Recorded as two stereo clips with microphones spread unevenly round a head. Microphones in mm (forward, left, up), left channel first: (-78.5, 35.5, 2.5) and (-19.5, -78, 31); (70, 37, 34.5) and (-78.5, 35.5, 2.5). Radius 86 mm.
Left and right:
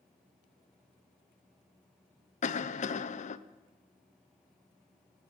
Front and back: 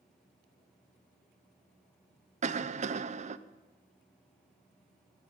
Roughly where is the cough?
Behind left.